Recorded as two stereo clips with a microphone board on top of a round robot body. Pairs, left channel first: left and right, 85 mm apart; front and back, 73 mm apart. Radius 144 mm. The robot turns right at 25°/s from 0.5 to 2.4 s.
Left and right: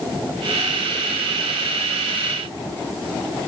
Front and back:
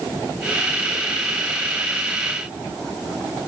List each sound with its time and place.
Only background noise.